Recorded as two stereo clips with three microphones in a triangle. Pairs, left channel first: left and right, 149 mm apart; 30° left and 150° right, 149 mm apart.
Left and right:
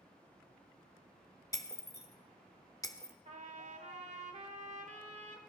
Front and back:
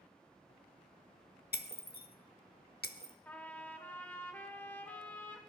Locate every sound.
1.5 s breaking glass: 25° left, 0.7 m
3.2 s a trumpet: 50° right, 1.4 m